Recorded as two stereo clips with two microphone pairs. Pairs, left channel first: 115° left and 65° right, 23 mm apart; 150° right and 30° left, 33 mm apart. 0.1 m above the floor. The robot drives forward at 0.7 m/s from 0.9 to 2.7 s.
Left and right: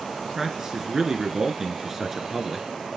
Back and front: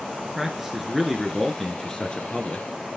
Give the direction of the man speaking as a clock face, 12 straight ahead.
1 o'clock.